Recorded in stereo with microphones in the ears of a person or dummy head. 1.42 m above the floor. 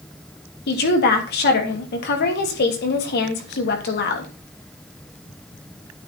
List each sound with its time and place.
0.7 s a woman speaking: 55° left (ahead or behind), 3 m